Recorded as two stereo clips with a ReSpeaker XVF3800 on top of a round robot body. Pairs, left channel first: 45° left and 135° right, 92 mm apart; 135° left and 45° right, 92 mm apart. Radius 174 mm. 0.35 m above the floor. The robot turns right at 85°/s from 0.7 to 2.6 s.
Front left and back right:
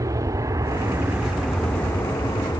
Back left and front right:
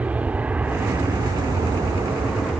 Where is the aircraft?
110° right; by 2.6 s 50° left.